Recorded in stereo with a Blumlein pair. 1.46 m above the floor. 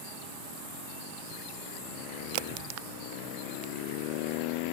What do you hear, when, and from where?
2.3 s a crack: 45° right